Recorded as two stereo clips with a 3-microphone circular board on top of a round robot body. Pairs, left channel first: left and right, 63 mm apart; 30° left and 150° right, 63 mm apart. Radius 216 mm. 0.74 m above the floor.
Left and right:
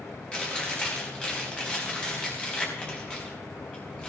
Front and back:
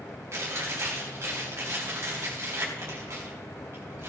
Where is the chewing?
165° left, 3.5 m.